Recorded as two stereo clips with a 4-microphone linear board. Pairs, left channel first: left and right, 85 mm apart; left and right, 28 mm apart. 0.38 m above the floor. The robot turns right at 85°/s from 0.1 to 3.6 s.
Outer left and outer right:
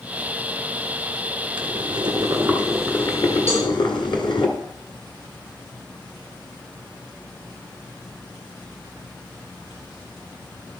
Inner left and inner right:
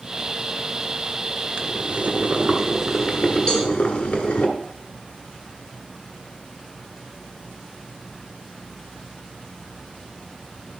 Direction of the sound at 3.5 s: 30° left (ahead or behind).